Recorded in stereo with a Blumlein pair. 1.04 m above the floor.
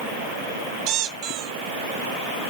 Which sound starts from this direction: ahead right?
A squeak, at 0.9 s.